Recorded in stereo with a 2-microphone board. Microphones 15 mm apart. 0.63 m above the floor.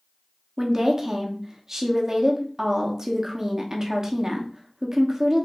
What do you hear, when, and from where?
0.6 s a woman speaking: 40° right (ahead or behind), 0.8 m